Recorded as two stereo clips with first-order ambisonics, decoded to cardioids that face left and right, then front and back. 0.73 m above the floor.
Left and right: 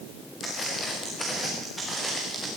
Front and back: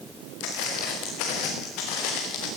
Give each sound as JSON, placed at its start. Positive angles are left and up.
{"t": 0.4, "sound": "footsteps", "azimuth_deg": 15, "distance_m": 5.5}